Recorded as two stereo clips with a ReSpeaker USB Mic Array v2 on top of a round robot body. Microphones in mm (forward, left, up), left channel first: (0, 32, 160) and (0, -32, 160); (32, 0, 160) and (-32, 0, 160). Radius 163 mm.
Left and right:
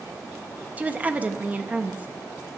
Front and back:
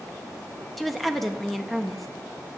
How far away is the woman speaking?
About 0.8 m.